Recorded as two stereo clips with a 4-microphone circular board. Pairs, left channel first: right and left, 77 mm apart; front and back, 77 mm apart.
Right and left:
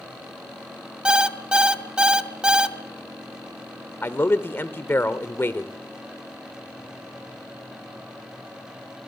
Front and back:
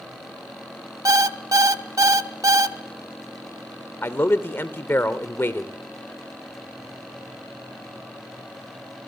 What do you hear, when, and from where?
1.1 s an alarm clock: 165° left, 0.8 m
4.0 s a man speaking: 45° right, 1.1 m